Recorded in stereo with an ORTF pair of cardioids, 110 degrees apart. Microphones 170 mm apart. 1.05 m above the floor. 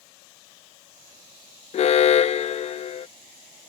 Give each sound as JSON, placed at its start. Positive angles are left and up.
{"t": 1.7, "sound": "an alarm", "azimuth_deg": 40}